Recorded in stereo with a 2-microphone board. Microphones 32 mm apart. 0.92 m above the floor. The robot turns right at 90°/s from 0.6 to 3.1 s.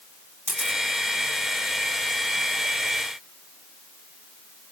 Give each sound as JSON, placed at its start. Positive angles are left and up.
{"t": 0.5, "sound": "a camera shutter", "side_deg": -60, "distance_m": 7.0}